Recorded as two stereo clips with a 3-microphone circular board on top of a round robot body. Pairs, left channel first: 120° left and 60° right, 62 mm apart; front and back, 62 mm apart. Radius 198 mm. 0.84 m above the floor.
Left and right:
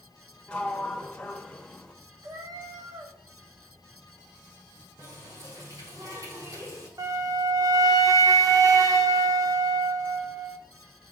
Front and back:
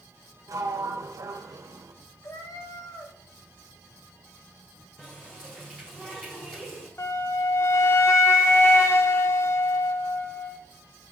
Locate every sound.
0.5 s a sliding door: 170° right, 1.4 m
2.2 s a cat meowing: 30° right, 1.2 m
5.0 s a running tap: 75° right, 4.5 m
7.0 s a flute: 40° right, 1.5 m